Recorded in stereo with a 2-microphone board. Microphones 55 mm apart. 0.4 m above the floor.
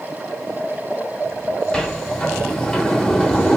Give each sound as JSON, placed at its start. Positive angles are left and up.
{"t": 1.7, "sound": "a sliding door", "side_deg": 15, "distance_m": 0.9}